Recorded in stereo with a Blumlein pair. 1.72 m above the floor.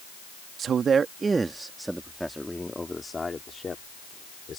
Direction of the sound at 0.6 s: 25° right.